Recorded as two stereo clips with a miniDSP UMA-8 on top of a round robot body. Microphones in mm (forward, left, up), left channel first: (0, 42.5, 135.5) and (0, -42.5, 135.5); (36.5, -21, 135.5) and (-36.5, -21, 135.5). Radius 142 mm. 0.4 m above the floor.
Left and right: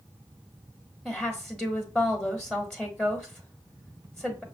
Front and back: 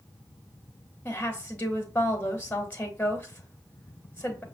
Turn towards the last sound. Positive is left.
turn(degrees=15)